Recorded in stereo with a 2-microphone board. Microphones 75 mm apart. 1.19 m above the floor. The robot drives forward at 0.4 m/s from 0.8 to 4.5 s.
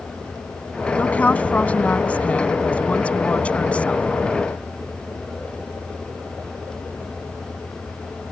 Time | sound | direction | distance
1.0 | a woman speaking | 20° left (ahead or behind) | ?